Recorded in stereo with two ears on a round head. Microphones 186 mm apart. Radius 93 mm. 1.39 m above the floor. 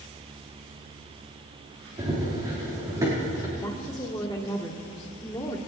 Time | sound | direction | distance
2.0 | running footsteps | 20° right (ahead or behind) | 5 m
3.6 | a woman speaking | 15° left (ahead or behind) | 1.6 m